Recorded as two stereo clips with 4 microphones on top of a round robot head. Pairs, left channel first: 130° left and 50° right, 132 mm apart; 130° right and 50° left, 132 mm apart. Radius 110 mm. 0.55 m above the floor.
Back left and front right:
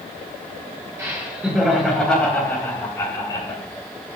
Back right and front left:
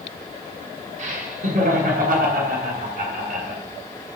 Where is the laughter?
20° left, 2 m; by 3.6 s 75° left, 2.5 m.